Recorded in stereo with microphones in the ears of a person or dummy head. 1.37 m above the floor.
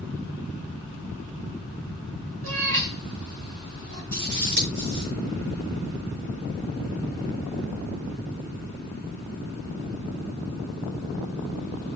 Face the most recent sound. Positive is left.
turn(degrees=-65)  # may be behind; listen again after turning